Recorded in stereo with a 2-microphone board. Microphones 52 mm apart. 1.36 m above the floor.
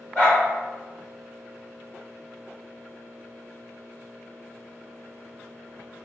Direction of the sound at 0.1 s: 20° left (ahead or behind).